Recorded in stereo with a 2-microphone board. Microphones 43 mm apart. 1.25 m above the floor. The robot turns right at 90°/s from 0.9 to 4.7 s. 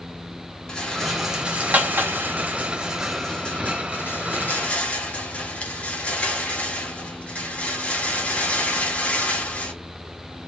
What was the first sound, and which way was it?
A rattle, 15° left (ahead or behind).